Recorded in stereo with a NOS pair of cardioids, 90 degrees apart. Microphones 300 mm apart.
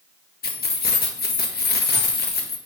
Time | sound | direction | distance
0.4 | keys jangling | 35° left | 1.2 m